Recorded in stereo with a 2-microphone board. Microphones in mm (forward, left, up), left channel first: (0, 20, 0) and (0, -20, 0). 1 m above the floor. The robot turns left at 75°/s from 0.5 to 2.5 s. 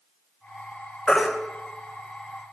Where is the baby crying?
30° left (ahead or behind), 2.5 m; by 1.3 s 10° left (ahead or behind), 2.5 m.